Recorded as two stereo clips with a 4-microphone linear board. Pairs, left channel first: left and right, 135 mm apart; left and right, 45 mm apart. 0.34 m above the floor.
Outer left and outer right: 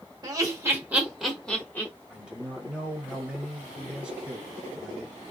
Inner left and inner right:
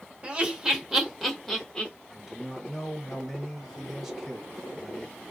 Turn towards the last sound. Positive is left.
turn(degrees=-5)  # may be behind; listen again after turning